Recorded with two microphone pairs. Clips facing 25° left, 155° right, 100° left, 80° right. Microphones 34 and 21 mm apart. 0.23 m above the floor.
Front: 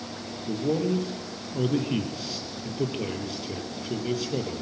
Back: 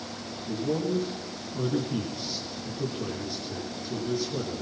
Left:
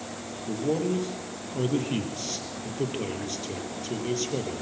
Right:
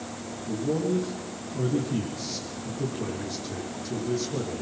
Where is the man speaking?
60° left, 6.5 m.